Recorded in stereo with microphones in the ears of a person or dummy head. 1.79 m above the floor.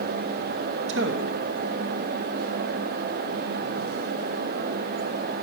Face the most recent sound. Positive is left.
turn(degrees=-65)  # may be behind; listen again after turning